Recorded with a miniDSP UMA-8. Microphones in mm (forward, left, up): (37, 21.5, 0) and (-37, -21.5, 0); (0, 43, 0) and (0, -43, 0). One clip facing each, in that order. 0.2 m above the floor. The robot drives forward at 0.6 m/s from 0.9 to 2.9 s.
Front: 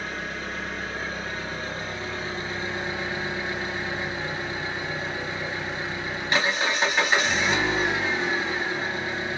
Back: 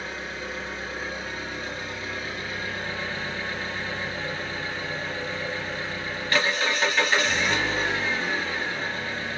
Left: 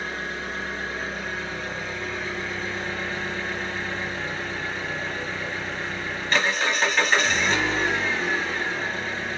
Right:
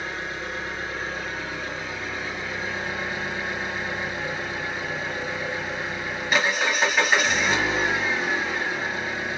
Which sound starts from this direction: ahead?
An engine running, at 0.0 s.